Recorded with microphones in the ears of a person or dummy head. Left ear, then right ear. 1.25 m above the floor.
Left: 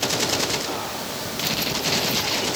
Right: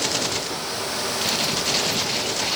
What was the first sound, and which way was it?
Only background noise.